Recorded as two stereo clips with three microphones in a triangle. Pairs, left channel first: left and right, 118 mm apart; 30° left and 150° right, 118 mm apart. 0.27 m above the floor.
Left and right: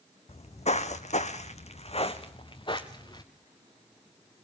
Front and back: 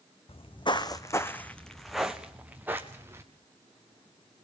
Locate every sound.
0.3 s footsteps: 60° left, 1.0 m; by 3.2 s 145° left, 1.7 m